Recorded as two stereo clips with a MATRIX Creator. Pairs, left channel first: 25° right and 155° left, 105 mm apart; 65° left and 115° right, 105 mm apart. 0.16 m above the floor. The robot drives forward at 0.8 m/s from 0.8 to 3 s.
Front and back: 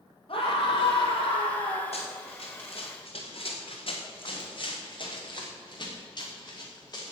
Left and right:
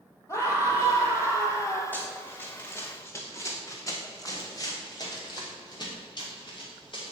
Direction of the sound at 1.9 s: 5° right.